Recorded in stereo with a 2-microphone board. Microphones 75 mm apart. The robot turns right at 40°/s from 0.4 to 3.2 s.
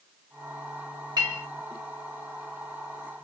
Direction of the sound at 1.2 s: 75° right (ahead or behind).